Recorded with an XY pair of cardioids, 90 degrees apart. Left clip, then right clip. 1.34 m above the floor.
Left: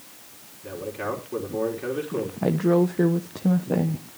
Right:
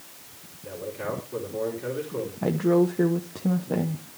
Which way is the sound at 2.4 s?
20° left.